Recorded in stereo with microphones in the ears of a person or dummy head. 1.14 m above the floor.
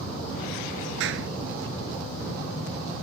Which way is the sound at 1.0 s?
70° right (ahead or behind).